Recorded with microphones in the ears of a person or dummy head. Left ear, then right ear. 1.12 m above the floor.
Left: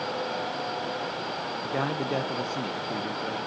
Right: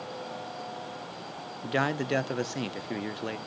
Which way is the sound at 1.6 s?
55° right (ahead or behind).